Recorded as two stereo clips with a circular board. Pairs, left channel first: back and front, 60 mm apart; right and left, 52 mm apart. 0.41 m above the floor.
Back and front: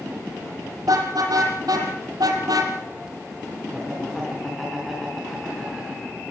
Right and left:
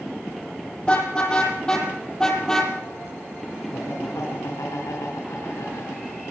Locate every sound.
0.8 s a car horn: 20° right, 6 m; by 2.7 s 10° right, 4.5 m
3.7 s laughter: 90° right, 4 m